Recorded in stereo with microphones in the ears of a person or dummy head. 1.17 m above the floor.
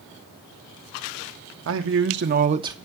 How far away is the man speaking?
About 1.2 m.